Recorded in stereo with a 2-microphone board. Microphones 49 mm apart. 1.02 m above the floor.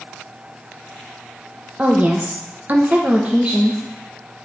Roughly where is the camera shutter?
I don't hear a camera shutter.